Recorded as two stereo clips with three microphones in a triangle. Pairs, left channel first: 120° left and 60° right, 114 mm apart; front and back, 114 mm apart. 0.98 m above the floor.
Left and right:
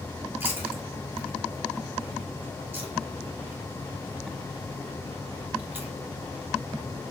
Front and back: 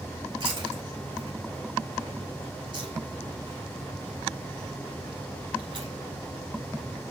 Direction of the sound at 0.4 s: 135° right.